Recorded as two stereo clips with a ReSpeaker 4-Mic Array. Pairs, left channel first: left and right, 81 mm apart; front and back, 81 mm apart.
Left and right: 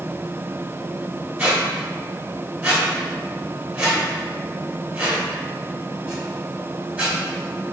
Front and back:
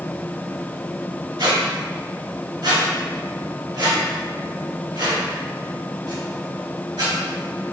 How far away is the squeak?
About 1.4 m.